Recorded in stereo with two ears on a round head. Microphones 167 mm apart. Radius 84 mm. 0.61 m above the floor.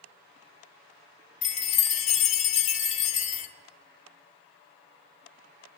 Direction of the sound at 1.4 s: 40° left (ahead or behind).